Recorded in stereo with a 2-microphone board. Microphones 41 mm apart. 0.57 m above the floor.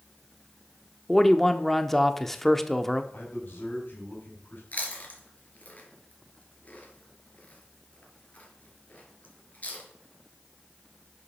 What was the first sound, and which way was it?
A man speaking, 5° left (ahead or behind).